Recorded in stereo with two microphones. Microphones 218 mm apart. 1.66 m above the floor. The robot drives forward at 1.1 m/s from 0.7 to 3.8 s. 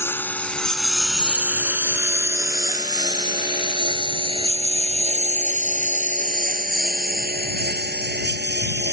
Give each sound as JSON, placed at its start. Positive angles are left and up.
{"t": 0.0, "sound": "a lawn mower", "side_deg": 10}